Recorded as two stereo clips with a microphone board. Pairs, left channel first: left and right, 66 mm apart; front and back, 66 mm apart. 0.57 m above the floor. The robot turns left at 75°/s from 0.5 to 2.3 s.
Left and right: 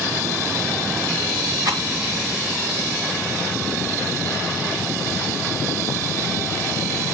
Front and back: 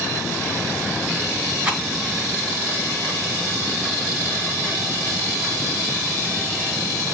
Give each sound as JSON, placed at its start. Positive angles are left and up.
{"t": 1.6, "sound": "a rattle", "azimuth_deg": -105, "distance_m": 2.5}